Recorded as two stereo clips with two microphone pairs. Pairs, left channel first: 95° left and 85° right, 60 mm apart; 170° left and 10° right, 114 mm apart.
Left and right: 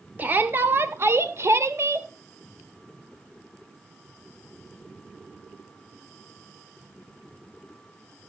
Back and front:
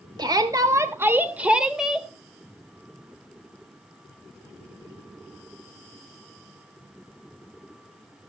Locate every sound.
0.2 s a shout: 40° right, 1.0 m; by 2.1 s 100° right, 1.3 m